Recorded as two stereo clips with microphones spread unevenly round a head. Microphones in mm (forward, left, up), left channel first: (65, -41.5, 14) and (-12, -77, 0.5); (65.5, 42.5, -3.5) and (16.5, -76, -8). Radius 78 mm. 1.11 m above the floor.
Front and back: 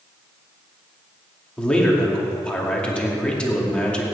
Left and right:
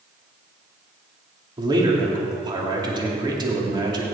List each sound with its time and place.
1.6 s a man speaking: 55° right, 2.5 m